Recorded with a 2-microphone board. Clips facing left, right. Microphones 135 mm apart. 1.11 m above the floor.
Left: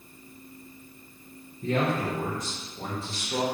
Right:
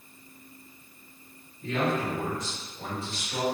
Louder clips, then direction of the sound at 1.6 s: Left 1 dB; 45° left (ahead or behind).